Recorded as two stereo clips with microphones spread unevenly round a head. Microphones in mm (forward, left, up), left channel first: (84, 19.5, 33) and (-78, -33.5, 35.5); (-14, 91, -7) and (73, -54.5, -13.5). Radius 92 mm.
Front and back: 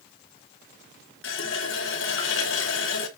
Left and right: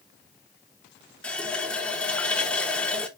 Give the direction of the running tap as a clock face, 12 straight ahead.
11 o'clock.